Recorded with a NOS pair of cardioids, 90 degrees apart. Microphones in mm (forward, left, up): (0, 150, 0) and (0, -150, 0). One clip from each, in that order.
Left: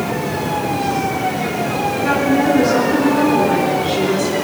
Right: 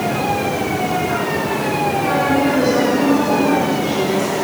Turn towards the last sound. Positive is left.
turn(degrees=30)